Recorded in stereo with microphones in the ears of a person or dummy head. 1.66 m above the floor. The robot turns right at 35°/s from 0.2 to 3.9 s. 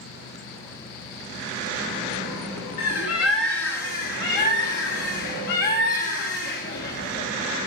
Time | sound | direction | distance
2.8 | a bird | 75° left | 1.0 m